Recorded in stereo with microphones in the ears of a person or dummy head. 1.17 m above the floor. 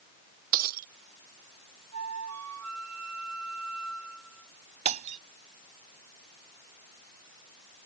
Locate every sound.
0.5 s breaking glass: 45° right (ahead or behind)
1.9 s a flute: 85° right
4.8 s breaking glass: 35° right (ahead or behind)